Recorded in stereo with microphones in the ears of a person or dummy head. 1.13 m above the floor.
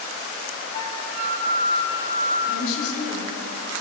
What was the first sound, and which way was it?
A flute, 80° left.